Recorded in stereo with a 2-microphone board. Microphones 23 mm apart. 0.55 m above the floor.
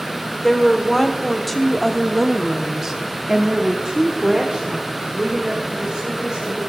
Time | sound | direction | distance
0.4 | a woman speaking | 10° left (ahead or behind) | 1.7 m